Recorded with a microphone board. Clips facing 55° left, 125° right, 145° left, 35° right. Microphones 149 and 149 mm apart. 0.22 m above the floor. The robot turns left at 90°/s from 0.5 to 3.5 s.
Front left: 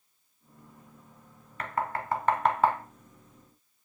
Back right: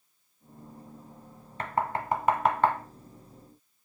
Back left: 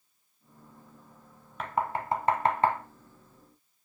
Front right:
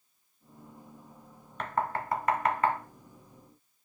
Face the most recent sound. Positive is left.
turn(degrees=55)